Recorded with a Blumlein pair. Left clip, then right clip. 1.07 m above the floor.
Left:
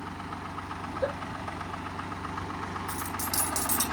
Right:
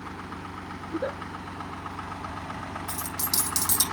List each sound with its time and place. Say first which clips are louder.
0.8 s a giggle: even; straight ahead, 3 m
2.9 s a dropped coin: right 3 dB; 65° right, 5 m